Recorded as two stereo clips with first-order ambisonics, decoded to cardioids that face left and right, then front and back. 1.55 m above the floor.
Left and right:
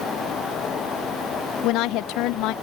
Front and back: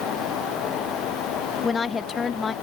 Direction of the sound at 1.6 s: 70° left.